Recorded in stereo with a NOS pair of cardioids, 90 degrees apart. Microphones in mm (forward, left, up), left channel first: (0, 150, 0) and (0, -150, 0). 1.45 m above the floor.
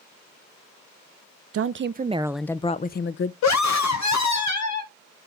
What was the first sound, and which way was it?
A woman speaking, 55° right.